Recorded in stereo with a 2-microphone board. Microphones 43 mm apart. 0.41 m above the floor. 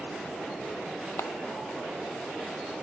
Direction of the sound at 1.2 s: 85° left.